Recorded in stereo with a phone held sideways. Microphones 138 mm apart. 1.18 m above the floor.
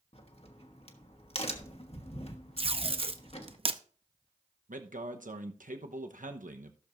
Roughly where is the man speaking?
Right.